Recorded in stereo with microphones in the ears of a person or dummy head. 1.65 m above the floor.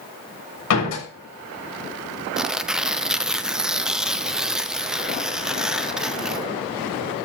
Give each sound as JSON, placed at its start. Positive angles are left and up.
{"t": 0.7, "sound": "a door slam", "side_deg": 85, "distance_m": 6.5}
{"t": 2.4, "sound": "tearing paper", "side_deg": 0, "distance_m": 0.7}